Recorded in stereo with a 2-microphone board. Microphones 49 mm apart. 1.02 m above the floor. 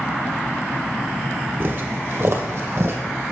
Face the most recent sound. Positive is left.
turn(degrees=-50)  # may be behind; listen again after turning